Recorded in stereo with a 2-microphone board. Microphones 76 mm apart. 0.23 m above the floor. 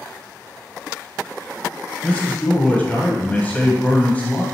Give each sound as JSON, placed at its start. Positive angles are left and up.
{"t": 2.0, "sound": "a man speaking", "side_deg": 20, "distance_m": 1.5}